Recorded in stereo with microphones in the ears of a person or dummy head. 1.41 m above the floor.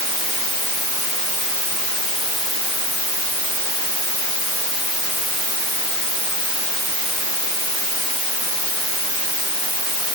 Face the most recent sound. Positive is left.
No sound to turn to.